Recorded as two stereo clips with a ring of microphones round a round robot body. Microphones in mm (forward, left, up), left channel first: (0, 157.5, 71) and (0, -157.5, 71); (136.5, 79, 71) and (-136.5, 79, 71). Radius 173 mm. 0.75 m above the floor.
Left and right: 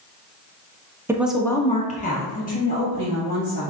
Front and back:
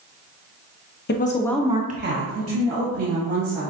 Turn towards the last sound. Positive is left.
turn(degrees=155)